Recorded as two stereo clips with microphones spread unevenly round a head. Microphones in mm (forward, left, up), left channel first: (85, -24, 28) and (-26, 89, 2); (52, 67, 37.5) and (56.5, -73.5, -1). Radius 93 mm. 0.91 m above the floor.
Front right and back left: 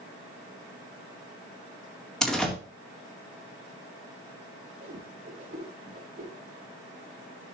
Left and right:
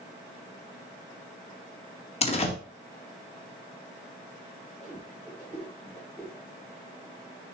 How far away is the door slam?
About 1.8 m.